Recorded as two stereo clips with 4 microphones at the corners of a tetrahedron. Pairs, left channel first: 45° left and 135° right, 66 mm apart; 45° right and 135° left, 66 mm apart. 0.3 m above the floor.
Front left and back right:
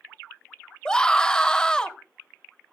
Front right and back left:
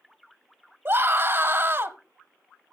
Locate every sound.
0.8 s a scream: 115° left, 1.1 m